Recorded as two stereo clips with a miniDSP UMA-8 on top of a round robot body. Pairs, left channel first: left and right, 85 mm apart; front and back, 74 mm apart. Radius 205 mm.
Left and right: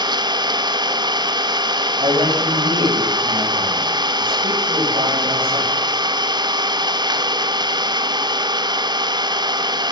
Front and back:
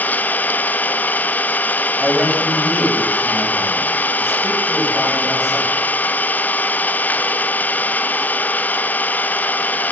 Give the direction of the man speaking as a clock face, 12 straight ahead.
3 o'clock.